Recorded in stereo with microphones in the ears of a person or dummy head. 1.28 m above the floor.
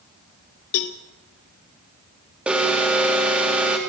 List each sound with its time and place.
0.7 s a cowbell: 50° left (ahead or behind), 0.7 m
2.5 s an alarm: 5° right (ahead or behind), 3 m